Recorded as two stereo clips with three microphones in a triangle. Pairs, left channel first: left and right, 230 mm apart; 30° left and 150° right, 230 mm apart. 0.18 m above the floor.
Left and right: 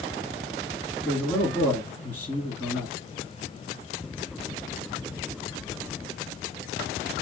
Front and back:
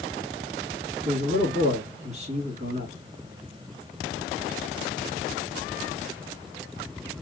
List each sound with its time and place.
1.1 s a man speaking: 170° left, 1.9 m